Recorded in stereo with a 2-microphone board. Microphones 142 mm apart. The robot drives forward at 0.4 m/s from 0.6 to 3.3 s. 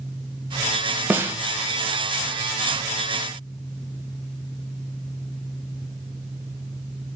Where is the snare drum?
15° right (ahead or behind), 0.6 m; by 1.4 s 20° right (ahead or behind), 0.5 m.